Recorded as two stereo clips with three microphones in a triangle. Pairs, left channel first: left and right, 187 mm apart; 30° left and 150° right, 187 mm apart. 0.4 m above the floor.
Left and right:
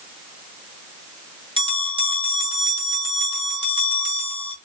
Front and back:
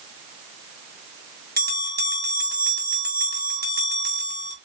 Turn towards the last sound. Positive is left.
turn(degrees=-150)